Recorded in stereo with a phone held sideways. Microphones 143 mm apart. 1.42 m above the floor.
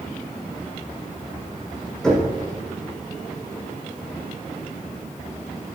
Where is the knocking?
5° left (ahead or behind), 5.5 m.